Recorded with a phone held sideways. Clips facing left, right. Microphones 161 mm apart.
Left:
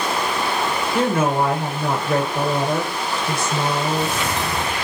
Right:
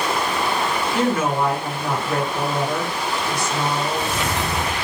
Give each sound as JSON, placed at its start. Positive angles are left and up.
{"t": 0.9, "sound": "a woman speaking", "side_deg": 55, "distance_m": 1.1}